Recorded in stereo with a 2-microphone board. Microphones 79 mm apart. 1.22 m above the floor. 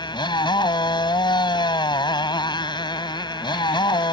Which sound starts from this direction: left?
A motorcycle, at 0.0 s.